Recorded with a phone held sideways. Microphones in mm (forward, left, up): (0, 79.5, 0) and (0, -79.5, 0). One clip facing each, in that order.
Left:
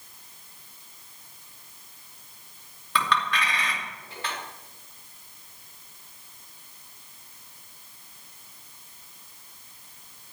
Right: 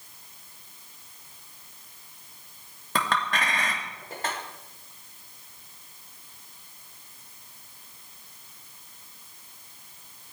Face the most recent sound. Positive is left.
turn(degrees=-45)  # may be behind; listen again after turning